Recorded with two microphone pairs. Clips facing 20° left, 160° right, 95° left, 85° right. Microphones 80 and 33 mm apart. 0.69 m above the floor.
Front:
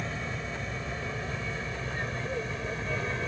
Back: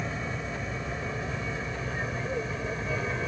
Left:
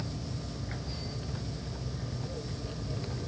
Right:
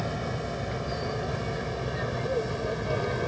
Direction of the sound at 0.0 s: 75° right.